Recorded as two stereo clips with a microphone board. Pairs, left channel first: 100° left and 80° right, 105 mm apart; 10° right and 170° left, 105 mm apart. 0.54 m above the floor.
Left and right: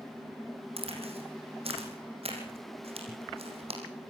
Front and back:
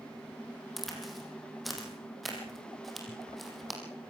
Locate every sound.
0.8 s a crack: 100° right, 5 m